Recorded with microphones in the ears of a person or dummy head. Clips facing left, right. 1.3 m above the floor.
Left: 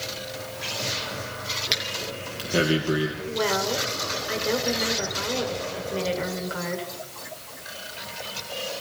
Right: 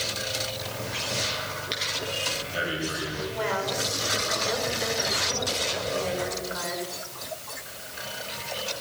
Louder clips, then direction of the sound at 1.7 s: Even; 70° left (ahead or behind).